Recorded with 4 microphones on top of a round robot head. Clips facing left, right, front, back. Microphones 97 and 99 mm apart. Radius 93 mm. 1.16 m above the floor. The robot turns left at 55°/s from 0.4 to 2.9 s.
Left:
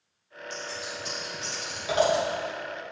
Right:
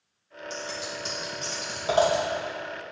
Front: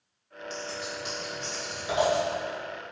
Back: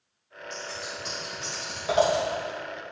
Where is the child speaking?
No child speaking in this recording.